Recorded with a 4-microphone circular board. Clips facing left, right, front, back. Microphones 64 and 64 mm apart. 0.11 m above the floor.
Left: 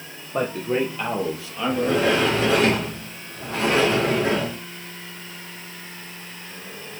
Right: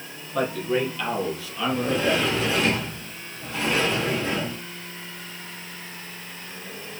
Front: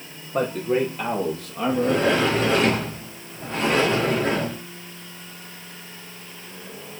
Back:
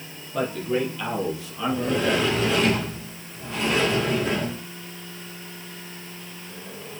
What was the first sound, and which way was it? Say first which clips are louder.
A man speaking: left 1 dB, front 3 dB; 45° left.